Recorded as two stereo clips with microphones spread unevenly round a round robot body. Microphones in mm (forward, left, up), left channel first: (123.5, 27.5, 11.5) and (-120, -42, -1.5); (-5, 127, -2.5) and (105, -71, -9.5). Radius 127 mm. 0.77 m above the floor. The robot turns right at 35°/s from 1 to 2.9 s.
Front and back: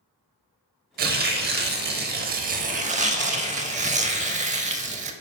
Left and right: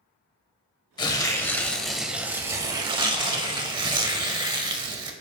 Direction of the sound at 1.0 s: 175° left.